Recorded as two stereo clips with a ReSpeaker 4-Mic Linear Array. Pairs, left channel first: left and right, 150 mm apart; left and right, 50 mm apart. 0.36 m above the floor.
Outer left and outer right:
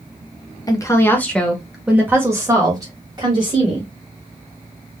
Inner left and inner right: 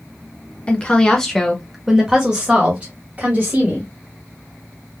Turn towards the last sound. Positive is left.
turn(degrees=-35)  # may be behind; listen again after turning